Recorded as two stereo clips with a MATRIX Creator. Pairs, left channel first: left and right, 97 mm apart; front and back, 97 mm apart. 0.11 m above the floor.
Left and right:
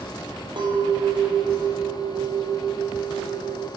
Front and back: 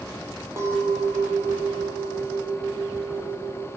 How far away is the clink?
About 2 m.